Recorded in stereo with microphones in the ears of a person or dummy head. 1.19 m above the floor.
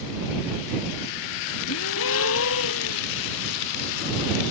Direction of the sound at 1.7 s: 75° left (ahead or behind).